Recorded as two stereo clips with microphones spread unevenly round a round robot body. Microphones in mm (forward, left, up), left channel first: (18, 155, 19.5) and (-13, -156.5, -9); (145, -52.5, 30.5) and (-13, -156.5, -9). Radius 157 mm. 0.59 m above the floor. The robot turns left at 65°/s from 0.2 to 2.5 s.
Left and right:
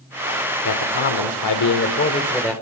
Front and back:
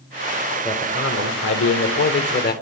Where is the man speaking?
115° left, 1.9 m; by 2.5 s 5° right, 1.9 m.